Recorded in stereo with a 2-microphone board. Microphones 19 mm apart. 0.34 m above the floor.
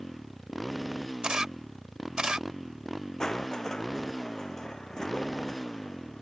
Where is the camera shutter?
40° right (ahead or behind).